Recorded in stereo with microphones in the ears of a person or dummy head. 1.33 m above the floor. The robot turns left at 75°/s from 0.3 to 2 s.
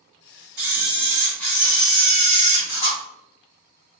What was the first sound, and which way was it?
A camera shutter, 125° right.